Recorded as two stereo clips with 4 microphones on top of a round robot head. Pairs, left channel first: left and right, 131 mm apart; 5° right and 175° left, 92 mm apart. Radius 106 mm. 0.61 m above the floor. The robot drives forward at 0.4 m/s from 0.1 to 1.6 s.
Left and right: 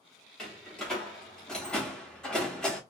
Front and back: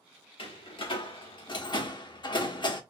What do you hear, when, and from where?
0.4 s a door slam: 5° left, 1.1 m